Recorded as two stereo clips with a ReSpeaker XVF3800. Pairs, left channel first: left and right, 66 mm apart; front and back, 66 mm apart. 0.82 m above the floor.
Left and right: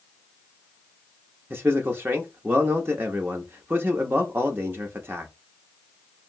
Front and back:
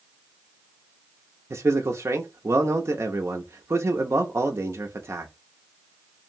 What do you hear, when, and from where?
1.5 s a man speaking: 140° right, 0.6 m